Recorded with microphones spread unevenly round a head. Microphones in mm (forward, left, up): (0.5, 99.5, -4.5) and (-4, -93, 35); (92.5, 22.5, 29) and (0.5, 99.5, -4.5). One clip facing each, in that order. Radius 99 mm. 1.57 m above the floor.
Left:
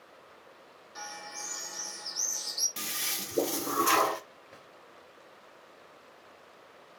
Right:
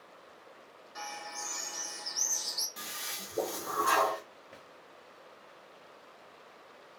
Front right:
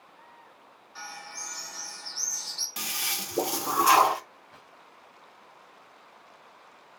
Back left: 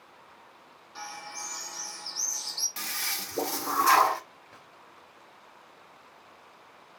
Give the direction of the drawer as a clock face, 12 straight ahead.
6 o'clock.